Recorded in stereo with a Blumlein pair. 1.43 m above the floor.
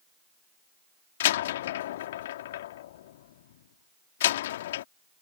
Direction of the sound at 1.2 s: 55° left.